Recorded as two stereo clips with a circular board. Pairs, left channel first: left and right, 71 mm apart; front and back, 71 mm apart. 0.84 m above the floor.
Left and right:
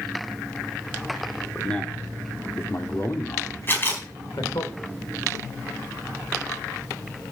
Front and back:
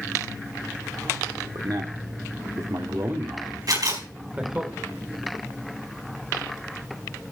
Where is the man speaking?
170° left, 2 m; by 4.7 s 105° left, 3 m.